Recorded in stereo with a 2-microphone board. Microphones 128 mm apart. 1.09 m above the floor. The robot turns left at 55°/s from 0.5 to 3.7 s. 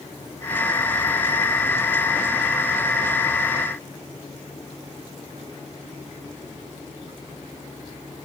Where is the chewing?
No chewing in this recording.